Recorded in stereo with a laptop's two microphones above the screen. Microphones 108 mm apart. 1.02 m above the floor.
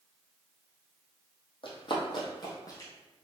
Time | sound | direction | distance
1.6 | running footsteps | 55° left (ahead or behind) | 1.7 m